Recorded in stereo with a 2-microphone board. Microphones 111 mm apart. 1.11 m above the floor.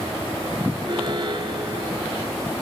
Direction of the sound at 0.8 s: 50° right (ahead or behind).